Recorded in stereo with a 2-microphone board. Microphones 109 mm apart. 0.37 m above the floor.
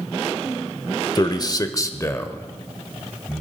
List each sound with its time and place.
1.1 s a man speaking: 35° left (ahead or behind), 0.9 m; by 3.4 s 10° left (ahead or behind), 1.6 m